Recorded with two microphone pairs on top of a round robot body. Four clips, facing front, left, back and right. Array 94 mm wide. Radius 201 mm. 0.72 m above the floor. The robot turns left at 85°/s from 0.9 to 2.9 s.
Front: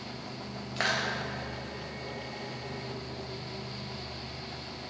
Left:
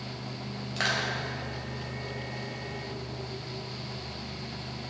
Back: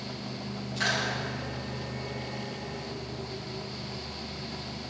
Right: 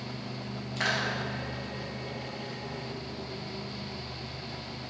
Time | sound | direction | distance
0.8 | crushing | 25° left | 2.5 m